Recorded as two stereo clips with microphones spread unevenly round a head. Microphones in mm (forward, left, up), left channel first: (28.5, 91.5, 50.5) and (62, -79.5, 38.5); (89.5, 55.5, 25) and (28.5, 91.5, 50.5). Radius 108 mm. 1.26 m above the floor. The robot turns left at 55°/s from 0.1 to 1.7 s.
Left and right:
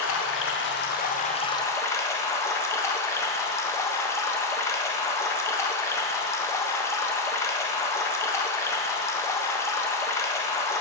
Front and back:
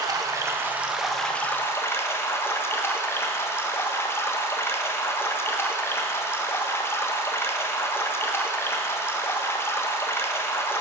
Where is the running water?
115° left, 1.2 m; by 10.8 s 25° left, 1.2 m.